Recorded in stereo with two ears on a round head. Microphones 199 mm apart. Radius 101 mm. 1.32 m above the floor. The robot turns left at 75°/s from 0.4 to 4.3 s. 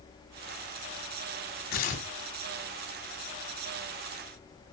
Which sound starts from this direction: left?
Tearing paper, at 1.7 s.